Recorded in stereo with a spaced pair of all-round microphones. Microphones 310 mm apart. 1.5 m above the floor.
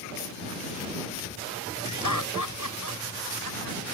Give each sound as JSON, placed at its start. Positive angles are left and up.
{"t": 1.9, "sound": "laughter", "side_deg": 85}